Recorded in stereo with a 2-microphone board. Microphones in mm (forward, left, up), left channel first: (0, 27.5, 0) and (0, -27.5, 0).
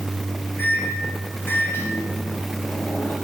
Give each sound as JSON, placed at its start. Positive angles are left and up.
{"t": 0.6, "sound": "a microwave", "side_deg": 40, "distance_m": 3.0}